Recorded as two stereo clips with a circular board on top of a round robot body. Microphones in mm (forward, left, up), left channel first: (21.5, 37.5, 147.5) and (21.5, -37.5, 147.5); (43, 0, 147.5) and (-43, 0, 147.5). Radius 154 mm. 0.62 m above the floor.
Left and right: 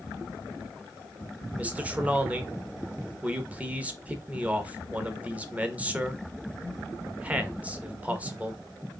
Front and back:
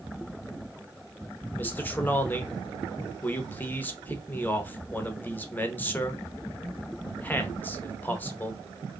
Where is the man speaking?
45° right, 1.0 m.